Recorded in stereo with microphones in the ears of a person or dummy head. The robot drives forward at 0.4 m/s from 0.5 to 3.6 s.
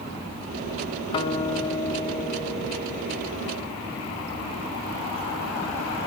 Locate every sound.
1.1 s a guitar: 25° left (ahead or behind), 0.5 m; by 3.4 s 10° left (ahead or behind), 1.4 m